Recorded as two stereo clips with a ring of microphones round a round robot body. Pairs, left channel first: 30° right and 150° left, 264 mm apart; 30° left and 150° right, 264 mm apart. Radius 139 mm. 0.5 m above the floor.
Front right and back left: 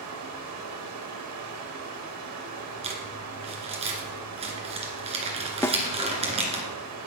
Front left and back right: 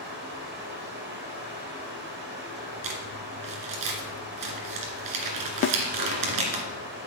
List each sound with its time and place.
0.0 s running water: 165° left, 2.5 m
2.8 s crumpling: 140° right, 2 m
5.6 s a snare drum: 45° left, 0.5 m